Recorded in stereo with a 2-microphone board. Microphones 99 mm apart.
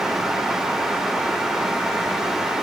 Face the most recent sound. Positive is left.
No sound to turn to.